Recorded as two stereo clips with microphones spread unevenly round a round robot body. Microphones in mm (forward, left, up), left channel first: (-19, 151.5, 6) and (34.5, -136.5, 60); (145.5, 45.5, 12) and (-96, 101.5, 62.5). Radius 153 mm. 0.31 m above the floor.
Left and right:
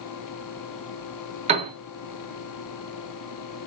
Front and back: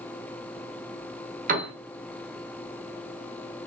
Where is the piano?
145° right, 1.3 m.